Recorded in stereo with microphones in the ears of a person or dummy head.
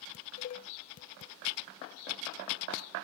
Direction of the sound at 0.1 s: 40° left (ahead or behind).